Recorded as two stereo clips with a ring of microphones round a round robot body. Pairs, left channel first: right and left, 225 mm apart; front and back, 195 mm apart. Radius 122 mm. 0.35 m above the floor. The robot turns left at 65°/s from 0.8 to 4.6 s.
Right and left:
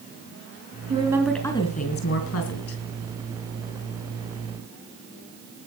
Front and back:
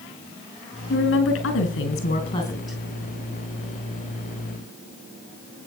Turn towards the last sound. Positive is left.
turn(degrees=145)